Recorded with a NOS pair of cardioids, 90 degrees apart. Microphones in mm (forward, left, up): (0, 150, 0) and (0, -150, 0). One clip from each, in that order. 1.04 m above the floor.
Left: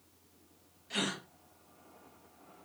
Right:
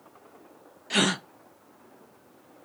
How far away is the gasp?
About 0.8 m.